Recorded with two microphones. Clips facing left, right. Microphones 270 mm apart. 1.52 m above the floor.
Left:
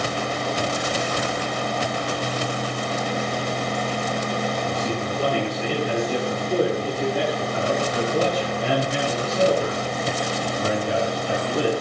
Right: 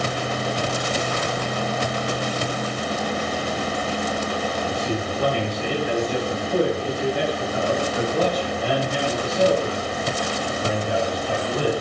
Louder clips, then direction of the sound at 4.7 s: Even; 50° left (ahead or behind).